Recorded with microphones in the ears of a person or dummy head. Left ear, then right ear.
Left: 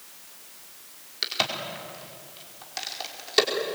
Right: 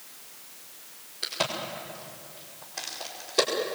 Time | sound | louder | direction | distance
1.2 | a crack | left 3 dB | 60° left (ahead or behind) | 5 m